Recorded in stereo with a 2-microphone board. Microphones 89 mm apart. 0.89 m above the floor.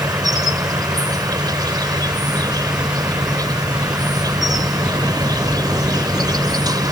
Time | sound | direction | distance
0.0 | an insect | 50° right (ahead or behind) | ?